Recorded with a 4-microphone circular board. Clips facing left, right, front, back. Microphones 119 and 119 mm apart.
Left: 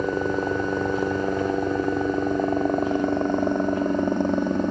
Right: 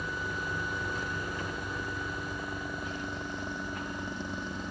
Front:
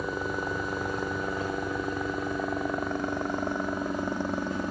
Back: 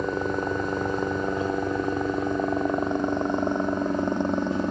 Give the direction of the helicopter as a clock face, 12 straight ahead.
8 o'clock.